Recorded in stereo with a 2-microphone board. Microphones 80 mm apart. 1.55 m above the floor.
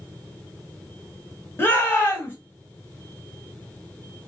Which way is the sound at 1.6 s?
25° left (ahead or behind).